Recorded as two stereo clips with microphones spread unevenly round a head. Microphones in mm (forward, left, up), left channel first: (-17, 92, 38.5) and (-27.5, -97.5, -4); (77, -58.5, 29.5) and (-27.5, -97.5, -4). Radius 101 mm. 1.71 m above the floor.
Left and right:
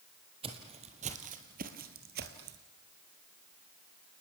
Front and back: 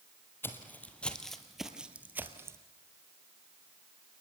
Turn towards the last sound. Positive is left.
turn(degrees=-90)